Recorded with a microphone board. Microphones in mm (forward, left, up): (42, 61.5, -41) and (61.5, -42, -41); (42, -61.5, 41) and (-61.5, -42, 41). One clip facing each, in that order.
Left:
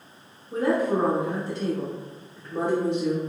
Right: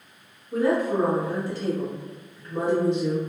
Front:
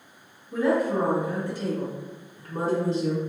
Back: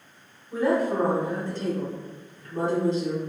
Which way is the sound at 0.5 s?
105° left.